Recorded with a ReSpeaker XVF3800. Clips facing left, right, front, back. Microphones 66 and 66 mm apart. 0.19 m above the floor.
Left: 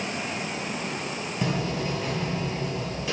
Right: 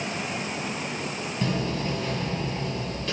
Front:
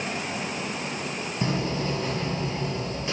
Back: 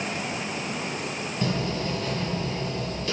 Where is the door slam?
25° left, 1.0 m.